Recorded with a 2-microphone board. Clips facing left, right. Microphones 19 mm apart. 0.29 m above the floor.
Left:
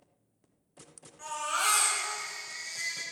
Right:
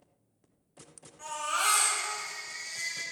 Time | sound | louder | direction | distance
1.2 | a baby crying | even | centre (ahead or behind) | 3 m